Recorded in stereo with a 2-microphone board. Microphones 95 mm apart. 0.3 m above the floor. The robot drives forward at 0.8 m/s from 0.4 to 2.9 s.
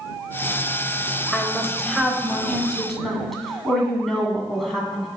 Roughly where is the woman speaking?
Centre.